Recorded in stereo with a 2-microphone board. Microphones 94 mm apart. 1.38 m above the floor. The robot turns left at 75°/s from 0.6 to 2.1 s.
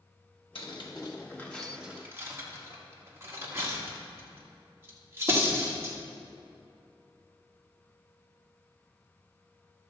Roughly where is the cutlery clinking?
Left.